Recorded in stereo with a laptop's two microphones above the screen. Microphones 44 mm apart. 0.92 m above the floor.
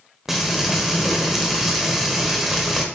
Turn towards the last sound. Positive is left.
turn(degrees=-10)  # may be behind; listen again after turning